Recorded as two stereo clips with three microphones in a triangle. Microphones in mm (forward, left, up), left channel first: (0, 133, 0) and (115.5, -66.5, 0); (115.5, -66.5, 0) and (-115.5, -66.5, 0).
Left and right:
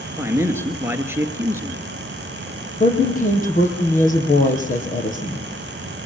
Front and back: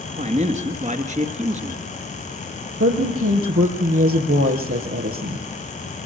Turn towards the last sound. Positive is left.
turn(degrees=175)